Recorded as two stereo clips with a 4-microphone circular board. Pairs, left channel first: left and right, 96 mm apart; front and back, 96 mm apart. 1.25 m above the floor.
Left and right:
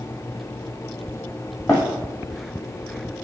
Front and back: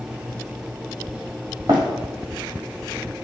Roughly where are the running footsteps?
Behind left.